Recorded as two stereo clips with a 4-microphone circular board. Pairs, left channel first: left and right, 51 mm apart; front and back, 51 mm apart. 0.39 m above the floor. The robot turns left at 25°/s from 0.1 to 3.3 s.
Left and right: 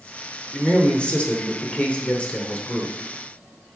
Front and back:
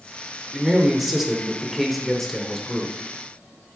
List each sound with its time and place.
0.5 s a man speaking: 120° left, 1.1 m; by 3.1 s 55° left, 1.1 m